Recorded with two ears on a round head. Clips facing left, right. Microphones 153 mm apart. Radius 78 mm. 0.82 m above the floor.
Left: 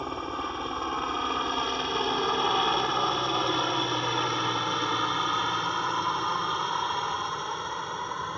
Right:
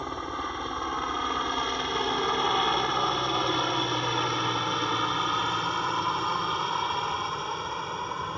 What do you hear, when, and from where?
0.0 s a helicopter: 5° left (ahead or behind); by 8.4 s 5° right (ahead or behind)